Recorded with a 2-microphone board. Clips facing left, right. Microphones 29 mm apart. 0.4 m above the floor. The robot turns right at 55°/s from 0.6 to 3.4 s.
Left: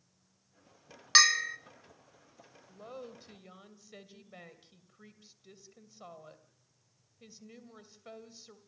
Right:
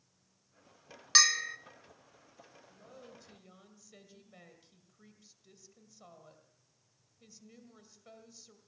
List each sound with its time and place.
1.1 s a bell: 15° left (ahead or behind), 0.5 m; by 1.6 s 5° right (ahead or behind), 0.5 m
2.7 s a woman speaking: 105° left, 2 m; by 8.6 s 145° left, 2 m